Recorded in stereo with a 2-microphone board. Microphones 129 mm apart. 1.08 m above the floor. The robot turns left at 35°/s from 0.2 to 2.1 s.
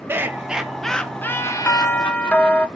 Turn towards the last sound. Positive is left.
turn(degrees=10)  # may be behind; listen again after turning